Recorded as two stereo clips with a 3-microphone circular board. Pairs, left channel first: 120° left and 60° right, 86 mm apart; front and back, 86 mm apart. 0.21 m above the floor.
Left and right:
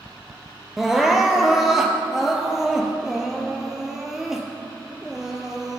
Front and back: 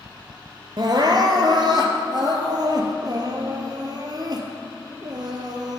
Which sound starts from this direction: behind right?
Crying, at 0.8 s.